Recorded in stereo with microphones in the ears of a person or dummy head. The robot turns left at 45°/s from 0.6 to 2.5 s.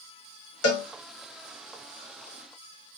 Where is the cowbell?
75° left (ahead or behind), 1.0 m.